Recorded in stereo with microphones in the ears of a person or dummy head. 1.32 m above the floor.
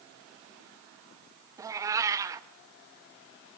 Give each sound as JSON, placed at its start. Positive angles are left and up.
{"t": 1.6, "sound": "a cat meowing", "side_deg": -20, "distance_m": 0.8}